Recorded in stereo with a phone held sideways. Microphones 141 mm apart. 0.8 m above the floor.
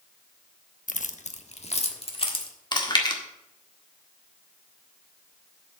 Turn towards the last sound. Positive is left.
turn(degrees=30)  # may be behind; listen again after turning